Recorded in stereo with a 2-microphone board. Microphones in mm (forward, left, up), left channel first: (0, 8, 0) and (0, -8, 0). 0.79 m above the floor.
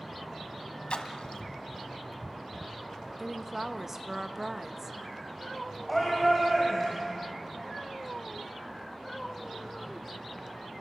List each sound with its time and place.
0.9 s a splash: 70° left (ahead or behind), 1.4 m
3.2 s a woman speaking: 15° right (ahead or behind), 0.7 m
5.9 s a shout: 5° left (ahead or behind), 4 m